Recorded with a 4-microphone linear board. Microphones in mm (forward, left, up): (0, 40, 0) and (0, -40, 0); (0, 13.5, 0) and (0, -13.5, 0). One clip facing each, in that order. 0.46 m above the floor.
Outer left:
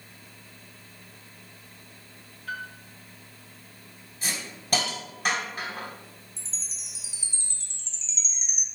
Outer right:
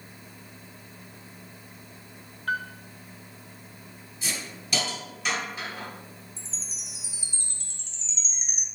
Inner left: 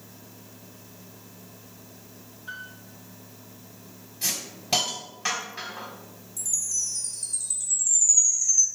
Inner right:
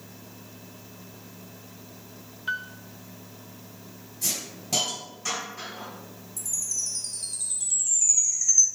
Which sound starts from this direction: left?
A hiss, at 4.2 s.